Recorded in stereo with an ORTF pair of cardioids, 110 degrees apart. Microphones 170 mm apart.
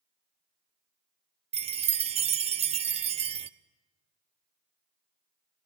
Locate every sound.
1.5 s a chime: 35° right, 0.7 m